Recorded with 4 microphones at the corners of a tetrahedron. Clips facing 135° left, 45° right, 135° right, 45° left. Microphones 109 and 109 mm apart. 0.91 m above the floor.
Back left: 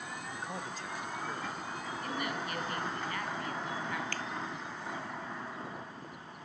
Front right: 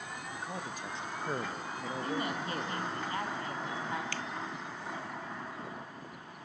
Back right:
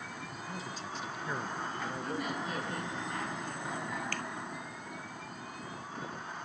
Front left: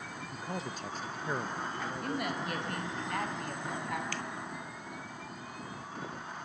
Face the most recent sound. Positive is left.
turn(degrees=-175)